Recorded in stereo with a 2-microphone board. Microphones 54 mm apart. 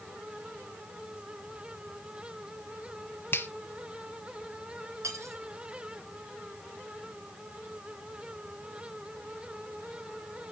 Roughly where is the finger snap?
Left.